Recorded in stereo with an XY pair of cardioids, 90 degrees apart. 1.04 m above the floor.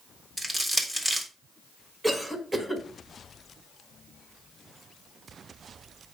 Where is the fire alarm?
I don't hear a fire alarm.